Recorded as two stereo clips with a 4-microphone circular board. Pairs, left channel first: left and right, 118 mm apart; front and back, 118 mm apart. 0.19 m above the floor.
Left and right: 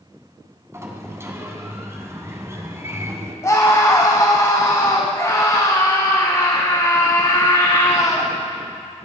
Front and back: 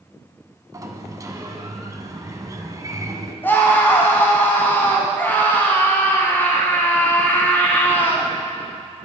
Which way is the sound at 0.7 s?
140° right.